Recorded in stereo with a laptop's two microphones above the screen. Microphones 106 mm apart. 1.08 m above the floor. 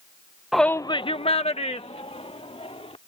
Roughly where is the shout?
Centre.